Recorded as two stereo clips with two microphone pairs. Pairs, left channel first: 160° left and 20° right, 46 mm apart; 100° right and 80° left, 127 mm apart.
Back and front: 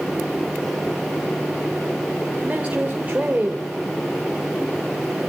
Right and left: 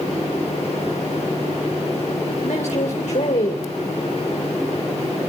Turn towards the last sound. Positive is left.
turn(degrees=-80)